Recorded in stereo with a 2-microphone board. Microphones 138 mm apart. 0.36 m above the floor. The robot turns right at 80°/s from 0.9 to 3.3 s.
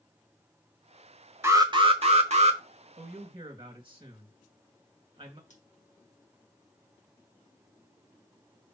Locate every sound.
1.4 s an alarm: 160° right, 1.1 m; by 2.6 s 65° right, 1.1 m
3.0 s a man speaking: 55° right (ahead or behind), 2.5 m; by 5.4 s 35° right (ahead or behind), 2.5 m
5.5 s scissors: 65° left (ahead or behind), 3.5 m